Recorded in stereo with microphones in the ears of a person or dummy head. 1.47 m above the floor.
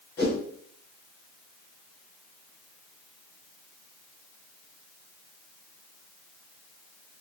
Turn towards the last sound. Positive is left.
turn(degrees=15)  # may be behind; listen again after turning